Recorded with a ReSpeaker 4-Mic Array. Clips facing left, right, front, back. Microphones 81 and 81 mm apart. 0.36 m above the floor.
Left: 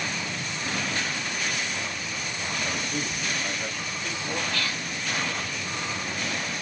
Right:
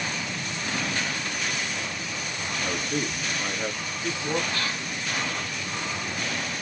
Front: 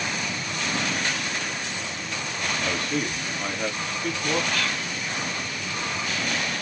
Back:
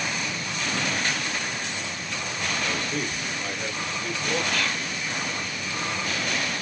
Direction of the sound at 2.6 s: 40° right.